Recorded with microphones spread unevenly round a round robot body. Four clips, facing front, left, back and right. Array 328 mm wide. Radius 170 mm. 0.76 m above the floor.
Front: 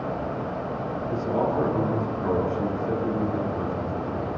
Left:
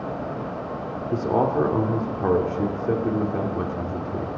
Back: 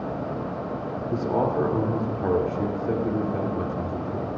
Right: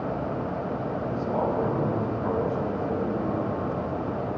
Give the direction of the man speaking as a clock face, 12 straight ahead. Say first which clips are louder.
Left 6 dB, back 1 dB; 8 o'clock.